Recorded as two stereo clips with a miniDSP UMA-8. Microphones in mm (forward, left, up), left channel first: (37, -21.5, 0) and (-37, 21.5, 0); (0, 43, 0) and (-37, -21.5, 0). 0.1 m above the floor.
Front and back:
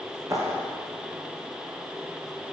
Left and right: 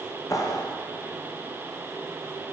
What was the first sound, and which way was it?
A clap, 100° left.